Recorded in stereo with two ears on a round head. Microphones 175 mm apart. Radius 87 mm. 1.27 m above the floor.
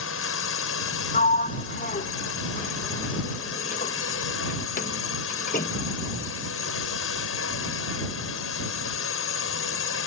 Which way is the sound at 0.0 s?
75° left (ahead or behind).